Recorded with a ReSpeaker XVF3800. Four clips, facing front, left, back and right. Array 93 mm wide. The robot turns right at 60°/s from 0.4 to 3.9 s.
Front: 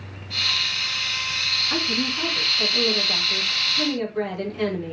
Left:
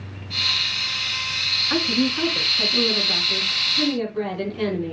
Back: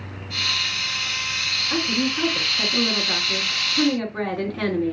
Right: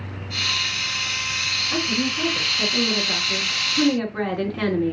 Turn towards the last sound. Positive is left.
turn(degrees=-125)